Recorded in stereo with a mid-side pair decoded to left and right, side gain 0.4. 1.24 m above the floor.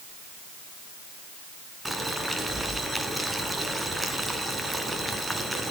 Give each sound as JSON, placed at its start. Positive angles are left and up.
{"t": 1.9, "sound": "boiling", "azimuth_deg": -15, "distance_m": 3.5}